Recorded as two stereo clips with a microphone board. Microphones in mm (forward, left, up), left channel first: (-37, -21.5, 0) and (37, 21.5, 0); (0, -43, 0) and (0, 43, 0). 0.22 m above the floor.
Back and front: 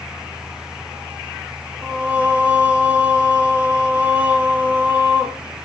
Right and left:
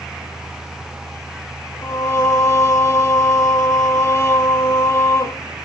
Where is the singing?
45° right, 0.7 m.